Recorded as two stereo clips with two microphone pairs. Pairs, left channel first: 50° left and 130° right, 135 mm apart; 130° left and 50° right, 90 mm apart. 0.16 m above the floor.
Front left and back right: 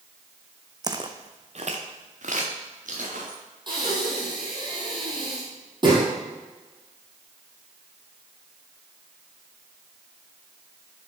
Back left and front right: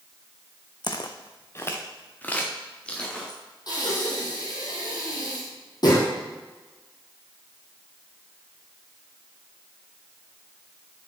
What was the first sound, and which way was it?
Footsteps, 165° left.